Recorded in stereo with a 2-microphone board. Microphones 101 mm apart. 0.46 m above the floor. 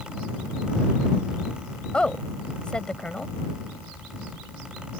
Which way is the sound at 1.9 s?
10° left (ahead or behind).